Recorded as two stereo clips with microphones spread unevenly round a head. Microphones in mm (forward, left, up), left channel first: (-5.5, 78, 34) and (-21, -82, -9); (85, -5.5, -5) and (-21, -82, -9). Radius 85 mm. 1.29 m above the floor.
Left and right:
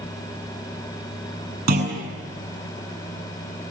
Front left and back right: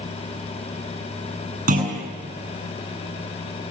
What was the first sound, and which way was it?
A clunk, 125° right.